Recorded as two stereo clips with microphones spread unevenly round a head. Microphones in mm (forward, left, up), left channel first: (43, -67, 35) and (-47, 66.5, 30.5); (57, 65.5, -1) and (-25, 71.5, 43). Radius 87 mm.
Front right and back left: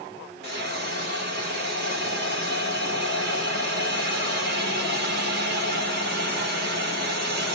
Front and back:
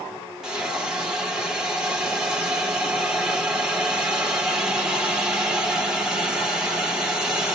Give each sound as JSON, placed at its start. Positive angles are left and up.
{"t": 0.4, "sound": "a hiss", "azimuth_deg": 95, "distance_m": 1.2}